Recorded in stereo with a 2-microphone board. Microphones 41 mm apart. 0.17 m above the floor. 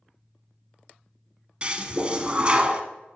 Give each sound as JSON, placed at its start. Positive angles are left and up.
{"t": 1.6, "sound": "a toilet flushing", "side_deg": -30, "distance_m": 0.6}